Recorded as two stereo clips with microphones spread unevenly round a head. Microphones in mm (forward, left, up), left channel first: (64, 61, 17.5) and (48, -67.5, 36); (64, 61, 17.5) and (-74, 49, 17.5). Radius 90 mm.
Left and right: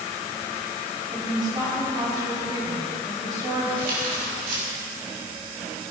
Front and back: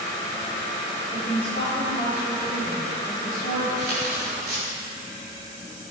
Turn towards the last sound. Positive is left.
turn(degrees=-100)